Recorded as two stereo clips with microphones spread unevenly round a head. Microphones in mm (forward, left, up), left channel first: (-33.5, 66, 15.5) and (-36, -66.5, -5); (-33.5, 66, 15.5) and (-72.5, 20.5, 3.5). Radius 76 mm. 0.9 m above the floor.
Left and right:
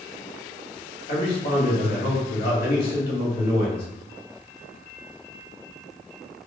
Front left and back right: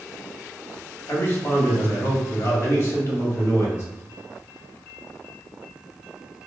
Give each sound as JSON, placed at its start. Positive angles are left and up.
{"t": 1.1, "sound": "a man speaking", "azimuth_deg": 85, "distance_m": 2.5}